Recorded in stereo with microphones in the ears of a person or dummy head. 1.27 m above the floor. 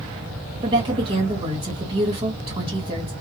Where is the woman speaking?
25° right (ahead or behind), 2 m.